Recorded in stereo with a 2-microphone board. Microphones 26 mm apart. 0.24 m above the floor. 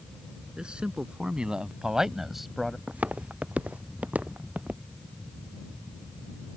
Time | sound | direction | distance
0.6 | a man speaking | 40° right (ahead or behind) | ?
2.9 | footsteps | 65° right (ahead or behind) | ?